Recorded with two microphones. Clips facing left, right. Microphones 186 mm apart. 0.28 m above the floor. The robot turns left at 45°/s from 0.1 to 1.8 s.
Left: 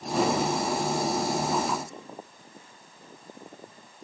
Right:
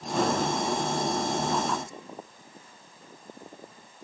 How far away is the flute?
No flute in this recording.